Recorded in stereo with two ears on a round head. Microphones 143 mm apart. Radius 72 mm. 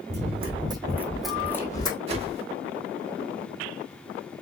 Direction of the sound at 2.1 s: 40° right (ahead or behind).